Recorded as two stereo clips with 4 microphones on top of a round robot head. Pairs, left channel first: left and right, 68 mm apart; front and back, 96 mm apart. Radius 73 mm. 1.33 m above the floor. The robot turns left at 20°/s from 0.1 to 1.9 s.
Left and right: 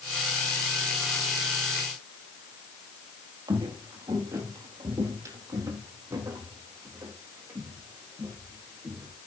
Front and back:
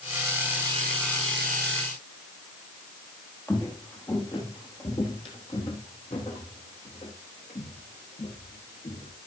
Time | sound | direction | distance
3.5 | footsteps | 70° right | 2 m